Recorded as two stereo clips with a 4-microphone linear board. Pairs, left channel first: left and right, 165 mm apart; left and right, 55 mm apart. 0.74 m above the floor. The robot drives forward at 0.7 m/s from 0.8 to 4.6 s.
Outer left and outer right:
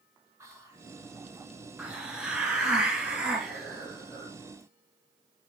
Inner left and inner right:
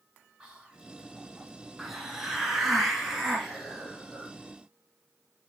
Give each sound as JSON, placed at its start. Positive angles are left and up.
{"t": 0.4, "sound": "whispering", "side_deg": -15, "distance_m": 3.0}
{"t": 1.8, "sound": "a hiss", "side_deg": -5, "distance_m": 2.0}